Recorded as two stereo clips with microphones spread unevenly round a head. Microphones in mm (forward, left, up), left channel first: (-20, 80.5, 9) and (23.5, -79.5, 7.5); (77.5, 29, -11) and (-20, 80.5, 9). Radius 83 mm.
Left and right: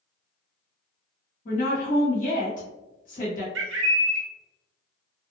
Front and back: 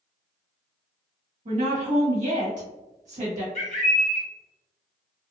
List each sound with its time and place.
1.4 s a woman speaking: 150° left, 1.4 m
3.5 s a bird: 80° right, 0.7 m